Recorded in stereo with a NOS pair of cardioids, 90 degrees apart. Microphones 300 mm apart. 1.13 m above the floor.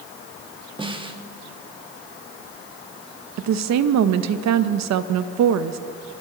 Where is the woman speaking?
70° right, 1.0 m.